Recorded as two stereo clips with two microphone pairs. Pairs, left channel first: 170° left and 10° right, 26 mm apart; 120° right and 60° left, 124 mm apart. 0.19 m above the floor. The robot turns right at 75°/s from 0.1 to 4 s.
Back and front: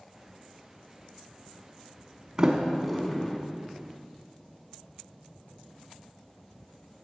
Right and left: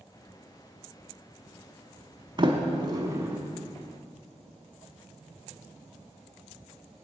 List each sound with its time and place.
2.4 s a sliding door: 45° left, 1.1 m; by 3.4 s 120° left, 1.1 m